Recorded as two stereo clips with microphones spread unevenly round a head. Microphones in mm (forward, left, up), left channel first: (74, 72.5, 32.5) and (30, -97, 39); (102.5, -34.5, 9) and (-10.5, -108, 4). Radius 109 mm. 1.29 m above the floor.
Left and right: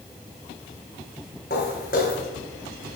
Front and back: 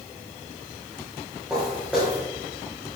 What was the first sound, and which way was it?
Footsteps, 130° left.